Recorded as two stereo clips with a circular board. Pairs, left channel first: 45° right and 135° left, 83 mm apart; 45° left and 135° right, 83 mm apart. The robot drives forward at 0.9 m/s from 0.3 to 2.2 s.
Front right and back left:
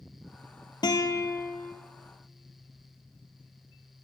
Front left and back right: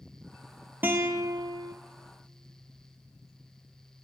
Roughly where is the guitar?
Right.